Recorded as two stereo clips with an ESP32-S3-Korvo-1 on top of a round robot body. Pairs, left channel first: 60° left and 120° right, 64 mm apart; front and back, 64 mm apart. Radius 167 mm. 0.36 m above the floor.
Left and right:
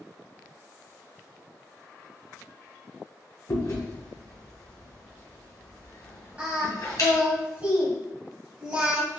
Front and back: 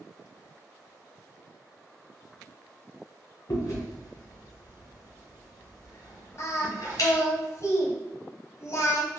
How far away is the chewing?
About 1.4 m.